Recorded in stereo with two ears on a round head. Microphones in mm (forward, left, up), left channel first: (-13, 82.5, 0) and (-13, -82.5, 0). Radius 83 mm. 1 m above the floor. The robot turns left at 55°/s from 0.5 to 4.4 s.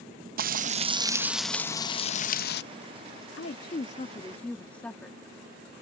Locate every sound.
0.4 s frying: 130° right; by 2.6 s 115° left
3.4 s a woman speaking: 65° left; by 5.2 s 10° left